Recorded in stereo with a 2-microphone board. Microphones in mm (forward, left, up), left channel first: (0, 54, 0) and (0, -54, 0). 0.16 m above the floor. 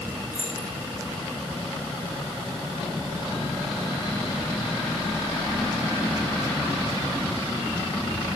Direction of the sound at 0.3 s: 20° right (ahead or behind).